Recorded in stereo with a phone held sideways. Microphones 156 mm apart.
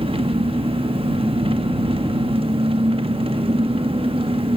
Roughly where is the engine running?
Right.